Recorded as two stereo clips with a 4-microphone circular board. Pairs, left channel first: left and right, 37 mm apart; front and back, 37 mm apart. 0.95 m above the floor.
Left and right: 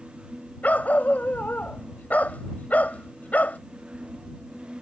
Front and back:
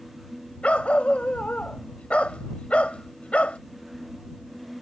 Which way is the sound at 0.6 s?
50° left.